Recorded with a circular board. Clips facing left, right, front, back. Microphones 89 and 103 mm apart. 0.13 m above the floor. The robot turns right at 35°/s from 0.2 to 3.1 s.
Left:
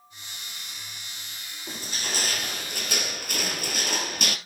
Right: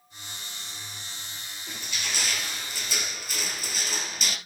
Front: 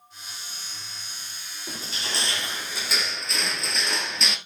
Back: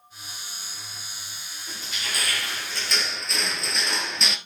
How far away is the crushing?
About 1.2 m.